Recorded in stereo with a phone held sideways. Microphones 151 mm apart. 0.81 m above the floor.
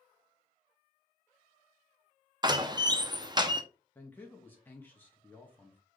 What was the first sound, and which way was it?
A door slam, 30° right (ahead or behind).